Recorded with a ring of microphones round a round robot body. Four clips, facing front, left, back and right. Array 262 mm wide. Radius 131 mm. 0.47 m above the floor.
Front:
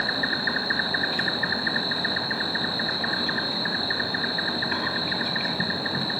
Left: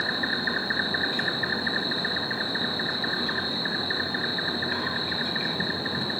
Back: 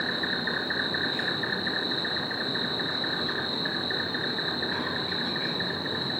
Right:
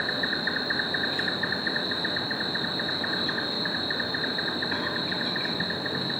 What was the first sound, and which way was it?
An insect, 5° left.